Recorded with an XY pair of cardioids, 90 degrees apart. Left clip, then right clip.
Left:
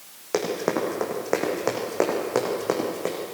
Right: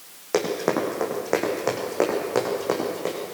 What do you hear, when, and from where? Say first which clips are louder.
0.3 s running footsteps: right 2 dB; 5° right, 6 m; by 3.1 s 20° left, 7.5 m